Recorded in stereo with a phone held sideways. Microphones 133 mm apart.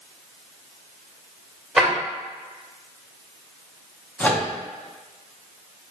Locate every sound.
1.8 s a drawer: centre (ahead or behind), 1.8 m
4.2 s a microwave: 10° left (ahead or behind), 0.7 m